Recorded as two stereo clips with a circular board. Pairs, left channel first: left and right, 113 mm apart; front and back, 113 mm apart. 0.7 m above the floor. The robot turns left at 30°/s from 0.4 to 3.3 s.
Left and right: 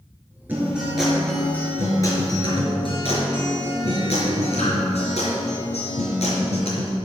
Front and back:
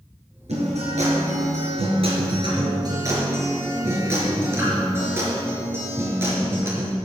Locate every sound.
0.5 s a guitar: 165° right, 4 m; by 7.0 s 115° left, 4 m